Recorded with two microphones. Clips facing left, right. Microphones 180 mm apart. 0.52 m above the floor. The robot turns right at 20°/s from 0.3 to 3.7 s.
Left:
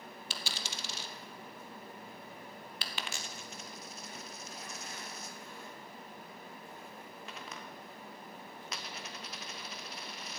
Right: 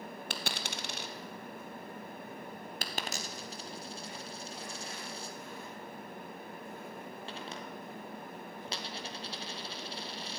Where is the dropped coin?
60° right (ahead or behind), 0.9 m; by 10.4 s 30° right (ahead or behind), 0.9 m.